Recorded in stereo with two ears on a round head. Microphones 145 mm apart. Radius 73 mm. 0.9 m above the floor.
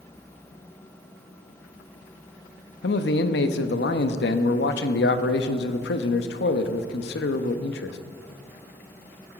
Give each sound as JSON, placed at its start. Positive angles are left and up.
{"t": 2.8, "sound": "a man speaking", "side_deg": 75, "distance_m": 0.9}